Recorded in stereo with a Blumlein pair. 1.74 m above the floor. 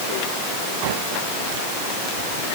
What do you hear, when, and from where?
Only background noise.